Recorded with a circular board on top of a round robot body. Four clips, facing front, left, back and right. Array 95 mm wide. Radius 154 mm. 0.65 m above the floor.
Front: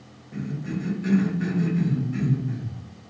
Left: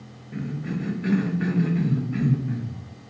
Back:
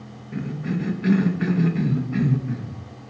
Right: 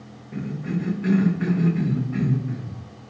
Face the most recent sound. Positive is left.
turn(degrees=175)